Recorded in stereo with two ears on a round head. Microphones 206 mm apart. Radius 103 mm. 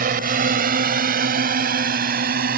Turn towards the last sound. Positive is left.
turn(degrees=-40)  # may be behind; listen again after turning